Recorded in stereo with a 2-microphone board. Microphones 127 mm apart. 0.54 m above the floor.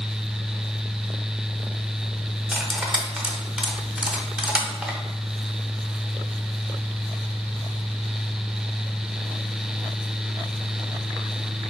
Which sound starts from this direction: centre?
Cutlery clinking, at 2.5 s.